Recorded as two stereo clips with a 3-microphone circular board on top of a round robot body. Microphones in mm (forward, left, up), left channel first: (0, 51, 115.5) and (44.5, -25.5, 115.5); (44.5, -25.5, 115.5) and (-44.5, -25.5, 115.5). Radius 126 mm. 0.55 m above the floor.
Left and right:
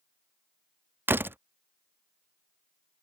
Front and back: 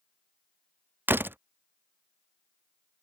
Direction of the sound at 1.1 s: 120° right.